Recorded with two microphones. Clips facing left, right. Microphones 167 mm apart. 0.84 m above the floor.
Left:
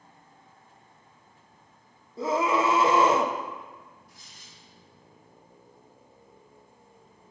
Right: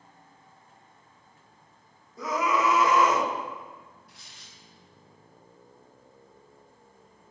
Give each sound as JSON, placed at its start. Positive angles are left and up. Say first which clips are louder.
{"t": 2.2, "sound": "a scream", "louder": "left 2 dB", "side_deg": 30, "distance_m": 0.9}
{"t": 4.1, "sound": "tearing paper", "louder": "even", "side_deg": -70, "distance_m": 1.2}